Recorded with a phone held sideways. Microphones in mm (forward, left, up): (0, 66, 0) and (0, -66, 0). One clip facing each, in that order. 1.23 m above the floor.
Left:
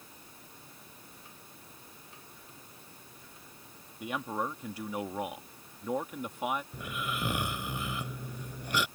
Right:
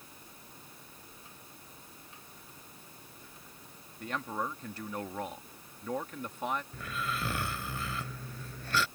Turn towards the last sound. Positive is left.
turn(degrees=15)  # may be behind; listen again after turning